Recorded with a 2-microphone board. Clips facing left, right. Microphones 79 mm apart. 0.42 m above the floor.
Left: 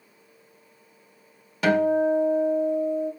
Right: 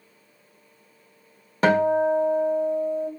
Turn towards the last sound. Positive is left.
turn(degrees=-40)  # may be behind; listen again after turning